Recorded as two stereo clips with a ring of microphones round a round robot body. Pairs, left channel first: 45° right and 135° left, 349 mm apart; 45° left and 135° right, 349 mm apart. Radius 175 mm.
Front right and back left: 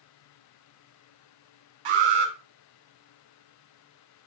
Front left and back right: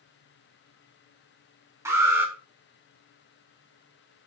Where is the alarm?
145° left, 4.5 m.